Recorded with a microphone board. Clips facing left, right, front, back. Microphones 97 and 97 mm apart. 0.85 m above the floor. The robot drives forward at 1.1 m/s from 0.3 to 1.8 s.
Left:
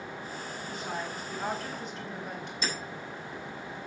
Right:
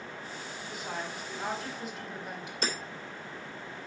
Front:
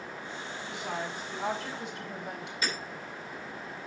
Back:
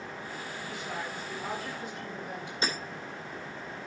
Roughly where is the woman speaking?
Ahead.